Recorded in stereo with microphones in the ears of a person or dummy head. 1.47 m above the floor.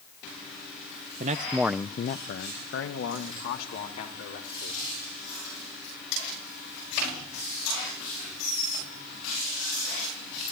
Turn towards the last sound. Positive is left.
turn(degrees=85)